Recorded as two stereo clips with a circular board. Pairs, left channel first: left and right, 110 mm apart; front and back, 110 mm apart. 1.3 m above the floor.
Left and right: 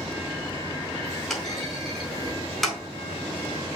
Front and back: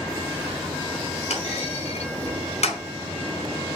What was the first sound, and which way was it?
A clunk, straight ahead.